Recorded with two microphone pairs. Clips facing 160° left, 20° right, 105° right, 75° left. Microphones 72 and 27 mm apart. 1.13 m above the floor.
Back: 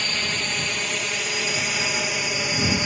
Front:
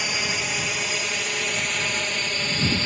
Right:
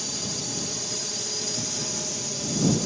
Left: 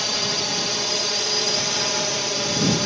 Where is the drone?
55° left; by 2.9 s 90° left.